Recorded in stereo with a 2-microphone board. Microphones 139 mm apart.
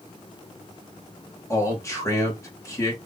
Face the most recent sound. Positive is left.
turn(degrees=20)  # may be behind; listen again after turning